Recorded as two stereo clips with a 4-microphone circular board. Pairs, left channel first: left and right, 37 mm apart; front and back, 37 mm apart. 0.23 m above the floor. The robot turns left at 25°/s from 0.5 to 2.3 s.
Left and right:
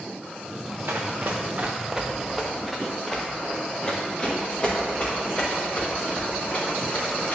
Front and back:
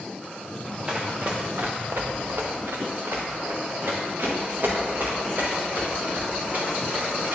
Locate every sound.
0.9 s running footsteps: 110° right, 1.5 m; by 7.4 s 140° left, 4 m